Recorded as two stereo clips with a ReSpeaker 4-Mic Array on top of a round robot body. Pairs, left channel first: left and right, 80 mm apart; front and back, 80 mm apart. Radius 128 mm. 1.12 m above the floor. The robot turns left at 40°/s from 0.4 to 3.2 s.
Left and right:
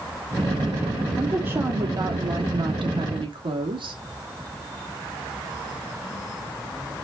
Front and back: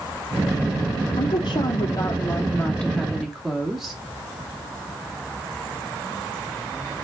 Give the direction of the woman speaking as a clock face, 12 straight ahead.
12 o'clock.